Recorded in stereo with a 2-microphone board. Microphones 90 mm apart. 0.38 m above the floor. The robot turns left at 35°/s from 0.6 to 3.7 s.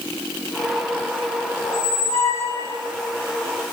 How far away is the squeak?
About 1.7 m.